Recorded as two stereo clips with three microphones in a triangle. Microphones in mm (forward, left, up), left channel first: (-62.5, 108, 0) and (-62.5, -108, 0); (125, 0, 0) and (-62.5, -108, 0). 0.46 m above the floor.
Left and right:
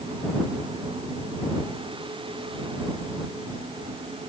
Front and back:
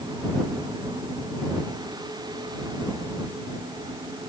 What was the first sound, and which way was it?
Only background noise.